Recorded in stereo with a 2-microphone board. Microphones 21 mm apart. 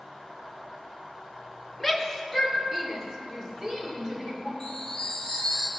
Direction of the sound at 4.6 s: 30° left (ahead or behind).